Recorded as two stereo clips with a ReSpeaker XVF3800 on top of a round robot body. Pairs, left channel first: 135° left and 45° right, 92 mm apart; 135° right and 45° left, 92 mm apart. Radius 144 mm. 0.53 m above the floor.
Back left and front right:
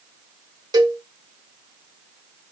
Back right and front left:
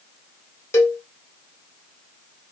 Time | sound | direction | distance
0.7 | a cowbell | 75° right | 2.0 m